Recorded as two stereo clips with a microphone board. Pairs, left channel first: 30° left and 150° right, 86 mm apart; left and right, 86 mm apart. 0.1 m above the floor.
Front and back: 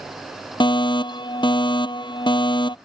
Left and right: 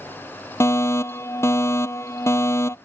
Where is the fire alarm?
35° left.